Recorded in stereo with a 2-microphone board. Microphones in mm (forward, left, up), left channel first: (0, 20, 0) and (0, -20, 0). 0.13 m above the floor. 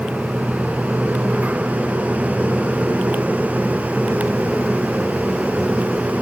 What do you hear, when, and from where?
Only background noise.